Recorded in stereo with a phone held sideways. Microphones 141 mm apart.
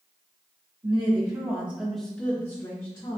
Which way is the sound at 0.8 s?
40° right (ahead or behind).